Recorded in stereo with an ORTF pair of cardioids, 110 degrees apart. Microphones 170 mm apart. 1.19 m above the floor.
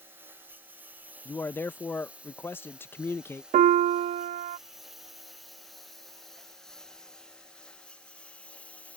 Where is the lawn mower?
15° right; by 9.0 s 10° left.